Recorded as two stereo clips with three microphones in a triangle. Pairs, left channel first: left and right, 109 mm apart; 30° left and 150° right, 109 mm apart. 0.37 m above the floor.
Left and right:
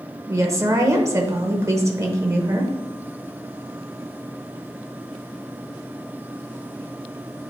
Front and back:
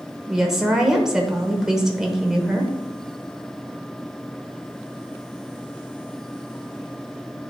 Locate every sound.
0.3 s a woman speaking: 70° right, 1.0 m